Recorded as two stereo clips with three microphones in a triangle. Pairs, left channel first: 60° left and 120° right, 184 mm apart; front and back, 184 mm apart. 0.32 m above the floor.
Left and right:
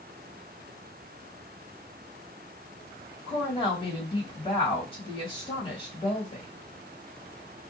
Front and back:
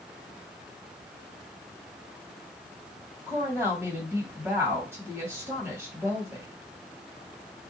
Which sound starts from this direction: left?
A woman speaking, at 3.3 s.